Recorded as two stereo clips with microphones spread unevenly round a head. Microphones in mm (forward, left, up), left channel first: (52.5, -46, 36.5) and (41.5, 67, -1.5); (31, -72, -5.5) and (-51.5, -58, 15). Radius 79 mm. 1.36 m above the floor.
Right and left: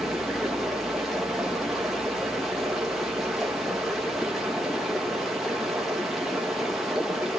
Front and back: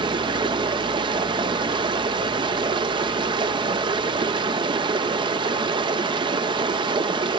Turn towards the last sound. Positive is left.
turn(degrees=-175)